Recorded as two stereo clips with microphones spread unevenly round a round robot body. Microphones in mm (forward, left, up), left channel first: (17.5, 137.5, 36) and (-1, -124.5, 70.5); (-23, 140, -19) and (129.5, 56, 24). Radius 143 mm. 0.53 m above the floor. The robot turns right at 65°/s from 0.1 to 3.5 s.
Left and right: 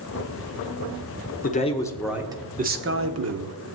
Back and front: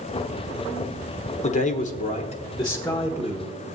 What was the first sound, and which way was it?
A man speaking, 130° left.